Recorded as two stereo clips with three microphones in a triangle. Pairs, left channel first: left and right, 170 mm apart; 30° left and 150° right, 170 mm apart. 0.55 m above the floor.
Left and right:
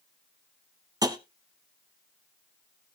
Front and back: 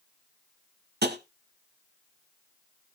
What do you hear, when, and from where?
1.0 s tapping: 160° right, 1.0 m